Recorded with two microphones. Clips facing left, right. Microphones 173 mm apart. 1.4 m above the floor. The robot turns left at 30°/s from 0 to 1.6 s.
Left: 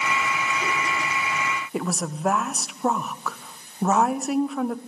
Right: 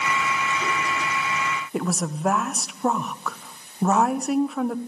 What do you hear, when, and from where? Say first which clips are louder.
1.7 s a woman speaking: right 2 dB; centre (ahead or behind), 1.0 m